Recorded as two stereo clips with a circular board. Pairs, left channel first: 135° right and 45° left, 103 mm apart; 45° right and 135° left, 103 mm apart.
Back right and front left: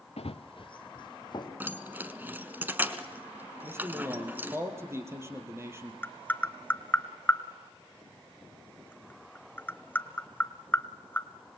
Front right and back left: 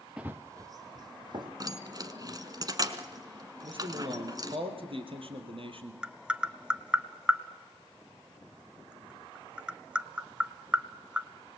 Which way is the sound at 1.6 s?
105° left.